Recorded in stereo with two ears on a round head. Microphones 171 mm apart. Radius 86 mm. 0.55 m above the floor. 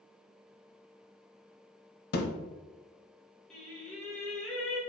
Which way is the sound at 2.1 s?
55° left (ahead or behind).